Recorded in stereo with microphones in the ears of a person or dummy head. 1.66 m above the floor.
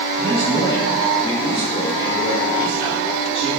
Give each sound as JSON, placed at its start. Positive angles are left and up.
{"t": 0.2, "sound": "a man speaking", "side_deg": 25, "distance_m": 8.0}